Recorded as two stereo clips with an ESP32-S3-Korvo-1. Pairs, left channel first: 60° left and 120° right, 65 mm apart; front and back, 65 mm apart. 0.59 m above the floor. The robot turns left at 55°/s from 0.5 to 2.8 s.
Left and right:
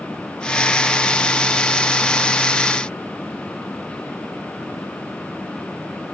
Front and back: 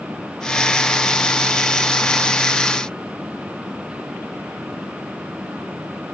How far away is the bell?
I don't hear a bell.